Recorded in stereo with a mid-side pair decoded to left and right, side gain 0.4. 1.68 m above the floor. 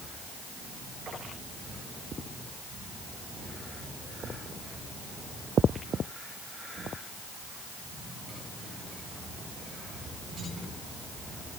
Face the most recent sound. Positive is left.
No sound to turn to.